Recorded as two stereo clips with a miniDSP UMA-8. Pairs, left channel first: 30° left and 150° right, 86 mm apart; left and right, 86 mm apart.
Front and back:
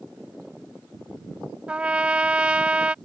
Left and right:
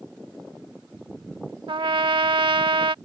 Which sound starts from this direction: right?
A trumpet, at 1.7 s.